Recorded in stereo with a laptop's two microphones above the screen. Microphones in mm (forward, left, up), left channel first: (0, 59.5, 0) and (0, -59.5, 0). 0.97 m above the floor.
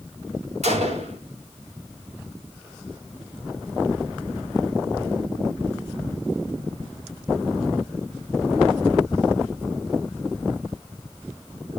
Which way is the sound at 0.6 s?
70° right (ahead or behind).